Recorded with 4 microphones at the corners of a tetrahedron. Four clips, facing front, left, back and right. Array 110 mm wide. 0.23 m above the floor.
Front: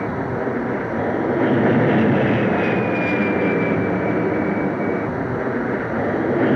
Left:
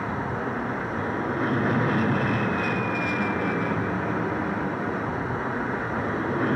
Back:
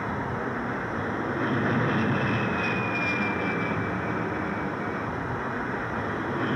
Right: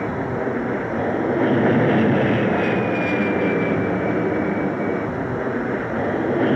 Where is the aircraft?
45° right; by 6.6 s 35° right.